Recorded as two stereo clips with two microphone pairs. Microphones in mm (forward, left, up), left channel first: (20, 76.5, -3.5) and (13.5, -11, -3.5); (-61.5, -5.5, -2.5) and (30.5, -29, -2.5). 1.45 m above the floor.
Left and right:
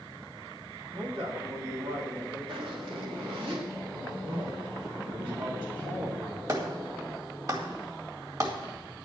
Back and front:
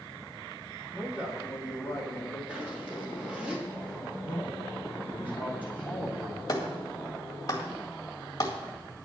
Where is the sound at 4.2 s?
85° right, 3 m.